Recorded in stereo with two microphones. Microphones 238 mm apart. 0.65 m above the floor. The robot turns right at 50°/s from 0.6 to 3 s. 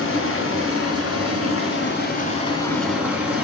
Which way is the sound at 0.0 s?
65° left.